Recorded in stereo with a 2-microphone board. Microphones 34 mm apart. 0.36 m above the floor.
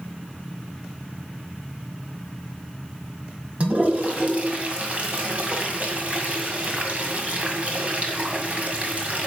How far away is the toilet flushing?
About 1.9 m.